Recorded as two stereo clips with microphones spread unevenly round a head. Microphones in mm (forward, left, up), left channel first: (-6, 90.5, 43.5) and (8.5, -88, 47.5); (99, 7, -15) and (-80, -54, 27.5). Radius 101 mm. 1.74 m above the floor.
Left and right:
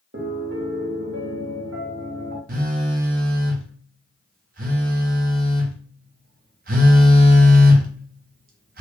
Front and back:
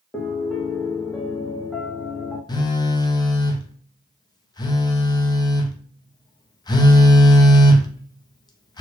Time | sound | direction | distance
0.1 | a piano | 75° right | 1.2 m
2.5 | a phone buzzing | 55° right | 0.5 m